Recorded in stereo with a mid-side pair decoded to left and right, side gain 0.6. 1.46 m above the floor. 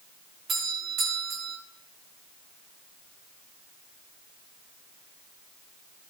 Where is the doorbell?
55° right, 6.5 m.